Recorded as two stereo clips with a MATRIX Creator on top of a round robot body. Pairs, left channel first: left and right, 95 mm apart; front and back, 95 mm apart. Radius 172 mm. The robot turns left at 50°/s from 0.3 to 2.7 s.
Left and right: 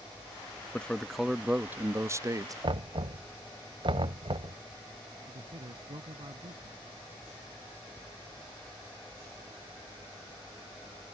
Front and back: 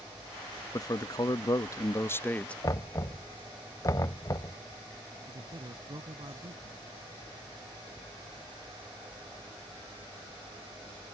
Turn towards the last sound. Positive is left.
turn(degrees=-135)